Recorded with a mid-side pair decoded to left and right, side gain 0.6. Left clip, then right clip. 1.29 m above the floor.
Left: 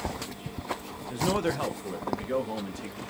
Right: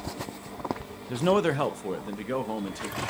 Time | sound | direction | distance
1.1 | a man speaking | 35° right | 0.9 m